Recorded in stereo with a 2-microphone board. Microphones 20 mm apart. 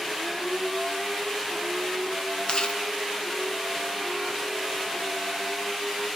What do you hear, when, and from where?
2.5 s chewing: 50° left (ahead or behind), 2 m